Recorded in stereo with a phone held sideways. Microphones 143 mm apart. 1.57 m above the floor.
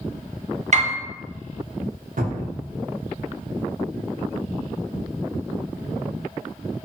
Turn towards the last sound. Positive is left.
turn(degrees=-75)  # may be behind; listen again after turning